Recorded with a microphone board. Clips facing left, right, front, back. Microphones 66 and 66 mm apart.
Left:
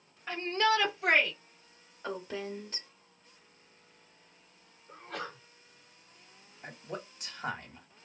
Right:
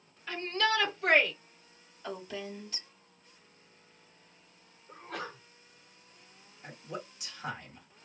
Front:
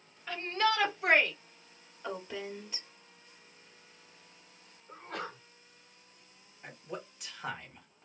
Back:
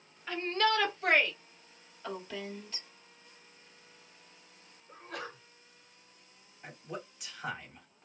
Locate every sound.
0.3 s a shout: 95° left, 1.5 m; by 1.3 s 10° left, 1.4 m
2.0 s a woman speaking: 70° left, 1.4 m
4.9 s a sneeze: 5° right, 1.8 m
6.6 s a man speaking: 95° left, 1.3 m